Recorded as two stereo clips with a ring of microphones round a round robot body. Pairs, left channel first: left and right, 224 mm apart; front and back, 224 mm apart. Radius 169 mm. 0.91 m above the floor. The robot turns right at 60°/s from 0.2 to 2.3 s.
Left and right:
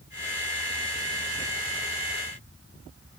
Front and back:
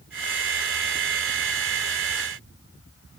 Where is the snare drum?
I don't hear a snare drum.